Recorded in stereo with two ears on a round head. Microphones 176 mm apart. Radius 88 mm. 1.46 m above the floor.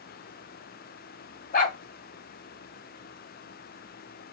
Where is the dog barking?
40° left (ahead or behind), 2.0 m.